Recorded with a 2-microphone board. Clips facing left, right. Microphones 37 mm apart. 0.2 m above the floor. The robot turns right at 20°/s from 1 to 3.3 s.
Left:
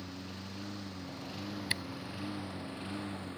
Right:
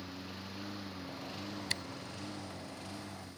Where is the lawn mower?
Centre (ahead or behind); by 3.4 s 40° left (ahead or behind).